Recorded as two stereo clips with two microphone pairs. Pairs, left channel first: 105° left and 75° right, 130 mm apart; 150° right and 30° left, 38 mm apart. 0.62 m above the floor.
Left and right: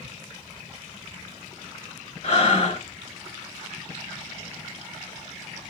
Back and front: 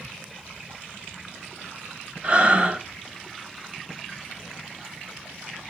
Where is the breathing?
70° left, 1.4 m.